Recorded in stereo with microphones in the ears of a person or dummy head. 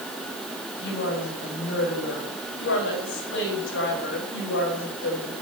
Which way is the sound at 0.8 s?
60° left (ahead or behind).